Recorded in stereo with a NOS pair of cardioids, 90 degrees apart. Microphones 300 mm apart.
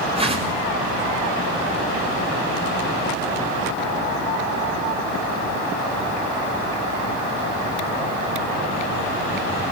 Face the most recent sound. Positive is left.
turn(degrees=-20)